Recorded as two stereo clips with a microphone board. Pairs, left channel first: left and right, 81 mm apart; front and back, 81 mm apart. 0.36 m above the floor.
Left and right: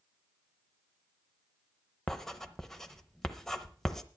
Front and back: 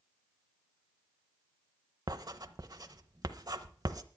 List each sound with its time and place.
2.1 s writing: 170° left, 0.8 m